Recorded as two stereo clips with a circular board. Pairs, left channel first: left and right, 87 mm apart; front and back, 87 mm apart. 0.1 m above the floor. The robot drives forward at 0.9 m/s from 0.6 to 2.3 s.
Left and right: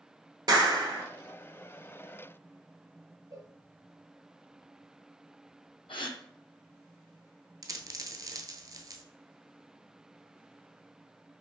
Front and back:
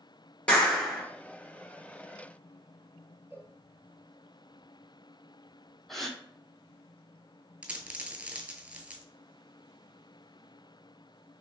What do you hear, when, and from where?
0.5 s a clap: 75° right, 1.3 m; by 1.0 s 95° right, 1.3 m
3.3 s a cowbell: 120° right, 1.1 m
5.9 s a gasp: 90° left, 0.7 m
7.6 s a dropped coin: 110° right, 0.6 m